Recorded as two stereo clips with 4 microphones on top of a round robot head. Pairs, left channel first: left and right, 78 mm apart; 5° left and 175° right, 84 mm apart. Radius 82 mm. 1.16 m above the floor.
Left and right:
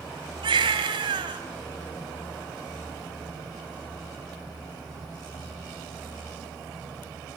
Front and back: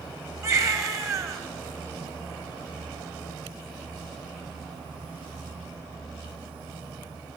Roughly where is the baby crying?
Behind right.